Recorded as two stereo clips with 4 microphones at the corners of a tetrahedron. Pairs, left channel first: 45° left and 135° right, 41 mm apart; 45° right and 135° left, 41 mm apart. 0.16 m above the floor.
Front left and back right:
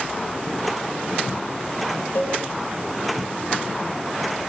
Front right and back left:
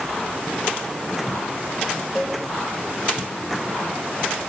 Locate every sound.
2.1 s a cowbell: 45° left, 8 m